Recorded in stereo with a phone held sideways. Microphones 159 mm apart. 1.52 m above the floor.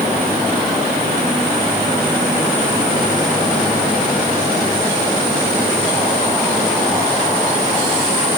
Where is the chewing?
I don't hear chewing.